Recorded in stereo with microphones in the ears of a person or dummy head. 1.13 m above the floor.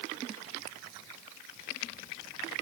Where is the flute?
No flute in this recording.